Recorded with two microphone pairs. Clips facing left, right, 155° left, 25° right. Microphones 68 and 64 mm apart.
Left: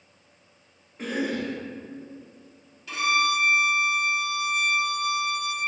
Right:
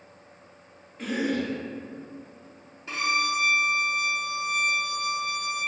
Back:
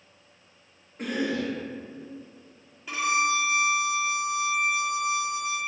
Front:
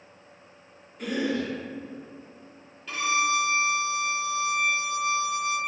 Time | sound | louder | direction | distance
1.0 | a cough | right 1 dB, even | 145° left | 0.9 m
2.9 | a violin | left 3 dB, even | 125° right | 0.8 m